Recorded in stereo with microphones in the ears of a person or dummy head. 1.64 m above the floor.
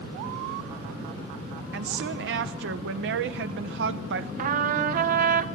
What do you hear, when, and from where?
1.7 s a woman speaking: 65° right (ahead or behind), 0.8 m
4.4 s a trumpet: 55° right (ahead or behind), 0.7 m